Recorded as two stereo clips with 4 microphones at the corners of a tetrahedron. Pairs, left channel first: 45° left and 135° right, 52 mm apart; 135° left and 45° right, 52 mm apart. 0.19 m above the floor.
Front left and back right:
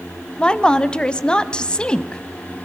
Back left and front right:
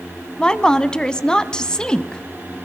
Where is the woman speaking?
85° left, 1.0 m.